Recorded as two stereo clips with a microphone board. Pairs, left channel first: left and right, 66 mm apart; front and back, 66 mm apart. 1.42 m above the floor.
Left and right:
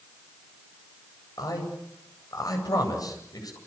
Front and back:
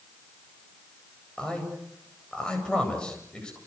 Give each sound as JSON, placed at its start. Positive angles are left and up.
{"t": 1.4, "sound": "a man speaking", "azimuth_deg": 75, "distance_m": 8.0}